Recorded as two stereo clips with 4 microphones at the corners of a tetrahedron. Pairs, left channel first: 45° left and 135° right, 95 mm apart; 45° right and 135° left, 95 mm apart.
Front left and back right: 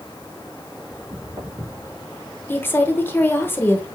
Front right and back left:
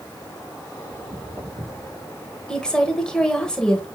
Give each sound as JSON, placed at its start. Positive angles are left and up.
{"t": 0.9, "sound": "footsteps", "azimuth_deg": -170, "distance_m": 4.0}
{"t": 2.5, "sound": "a woman speaking", "azimuth_deg": 25, "distance_m": 0.9}